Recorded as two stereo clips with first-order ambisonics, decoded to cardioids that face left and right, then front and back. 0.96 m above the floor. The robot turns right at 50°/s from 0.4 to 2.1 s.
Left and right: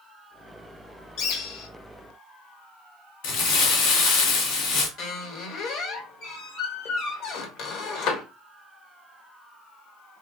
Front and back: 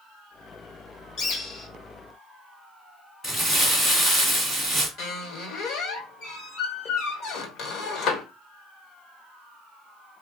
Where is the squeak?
50° left, 1.3 m.